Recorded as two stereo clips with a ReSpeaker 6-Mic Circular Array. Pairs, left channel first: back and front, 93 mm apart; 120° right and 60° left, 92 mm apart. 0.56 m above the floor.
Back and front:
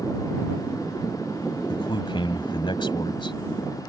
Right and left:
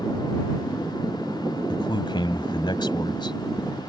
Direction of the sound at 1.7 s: 155° right.